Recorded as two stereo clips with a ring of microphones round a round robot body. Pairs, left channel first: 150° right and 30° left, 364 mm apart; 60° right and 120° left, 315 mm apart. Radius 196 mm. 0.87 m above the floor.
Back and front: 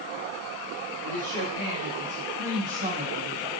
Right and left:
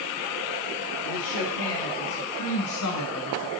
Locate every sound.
1.0 s a woman speaking: 40° right, 2.5 m; by 3.5 s 35° right, 0.8 m